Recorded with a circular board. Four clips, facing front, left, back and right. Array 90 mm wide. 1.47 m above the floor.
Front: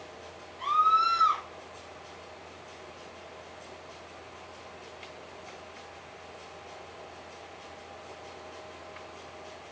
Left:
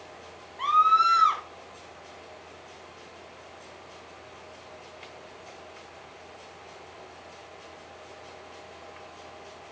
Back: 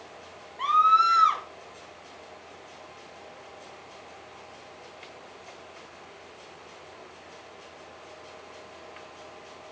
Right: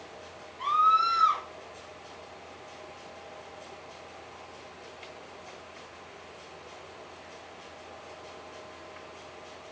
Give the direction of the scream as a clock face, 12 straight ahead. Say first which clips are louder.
Left 3 dB, back 4 dB; 7 o'clock.